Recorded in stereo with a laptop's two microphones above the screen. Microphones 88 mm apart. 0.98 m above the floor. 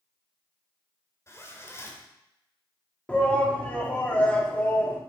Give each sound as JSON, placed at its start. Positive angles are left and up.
{"t": 1.3, "sound": "a zipper", "side_deg": 30, "distance_m": 1.7}
{"t": 3.1, "sound": "a shout", "side_deg": 15, "distance_m": 2.0}